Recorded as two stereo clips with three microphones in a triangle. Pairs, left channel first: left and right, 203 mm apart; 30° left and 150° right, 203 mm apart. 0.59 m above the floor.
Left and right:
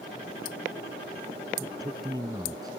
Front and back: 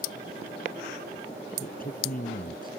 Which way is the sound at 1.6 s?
15° right.